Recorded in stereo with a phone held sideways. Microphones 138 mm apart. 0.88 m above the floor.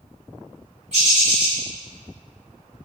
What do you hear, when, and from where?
0.9 s a bird: 50° right (ahead or behind), 1.8 m